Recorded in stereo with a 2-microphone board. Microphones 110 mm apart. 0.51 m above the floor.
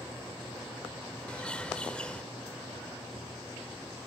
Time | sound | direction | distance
1.3 | a bird | 10° left (ahead or behind) | 1.1 m